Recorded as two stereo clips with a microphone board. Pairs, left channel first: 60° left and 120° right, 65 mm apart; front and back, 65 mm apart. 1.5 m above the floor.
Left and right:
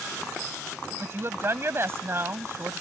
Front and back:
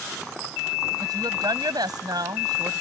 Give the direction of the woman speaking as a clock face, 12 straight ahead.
6 o'clock.